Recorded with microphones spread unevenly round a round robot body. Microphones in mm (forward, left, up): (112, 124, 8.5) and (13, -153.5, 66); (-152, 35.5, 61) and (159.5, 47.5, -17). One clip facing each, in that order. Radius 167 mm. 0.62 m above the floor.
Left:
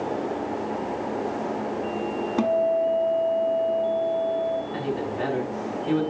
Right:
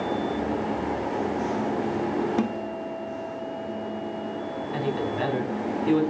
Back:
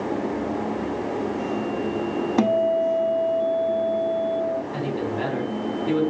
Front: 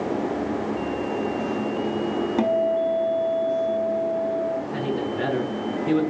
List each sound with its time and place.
2.4 s a guitar: 135° left, 0.8 m
4.7 s a man speaking: 90° right, 4.5 m